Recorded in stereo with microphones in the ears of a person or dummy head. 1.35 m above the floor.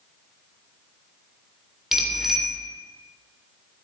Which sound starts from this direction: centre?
A bicycle bell, at 1.9 s.